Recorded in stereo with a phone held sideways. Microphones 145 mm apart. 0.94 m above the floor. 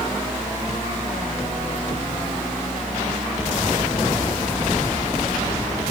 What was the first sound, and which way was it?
A fan, 5° left (ahead or behind).